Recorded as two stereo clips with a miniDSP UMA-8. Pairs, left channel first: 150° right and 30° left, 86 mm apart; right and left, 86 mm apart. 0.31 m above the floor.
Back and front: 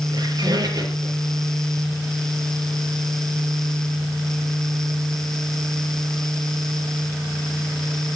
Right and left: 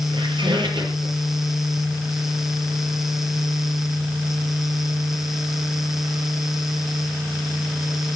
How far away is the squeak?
About 5 m.